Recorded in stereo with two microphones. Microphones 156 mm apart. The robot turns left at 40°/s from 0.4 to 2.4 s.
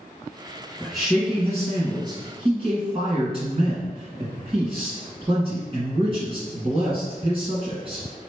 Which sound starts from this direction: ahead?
A man speaking, at 0.8 s.